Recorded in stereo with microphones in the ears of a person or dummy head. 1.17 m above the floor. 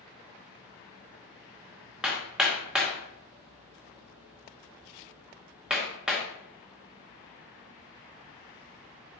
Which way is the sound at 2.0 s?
5° right (ahead or behind).